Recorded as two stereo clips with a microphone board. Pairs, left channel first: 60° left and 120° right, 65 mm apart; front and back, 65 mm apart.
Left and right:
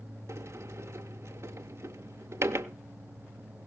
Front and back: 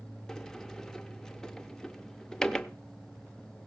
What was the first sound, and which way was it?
A sliding door, 80° right.